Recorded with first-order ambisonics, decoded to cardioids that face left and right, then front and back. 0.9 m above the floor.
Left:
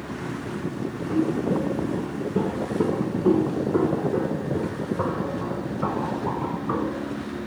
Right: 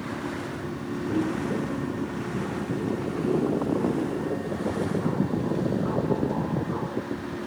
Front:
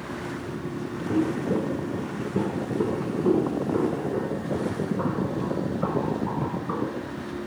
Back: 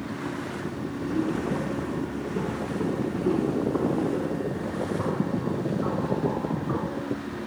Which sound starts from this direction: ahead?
Footsteps, at 1.1 s.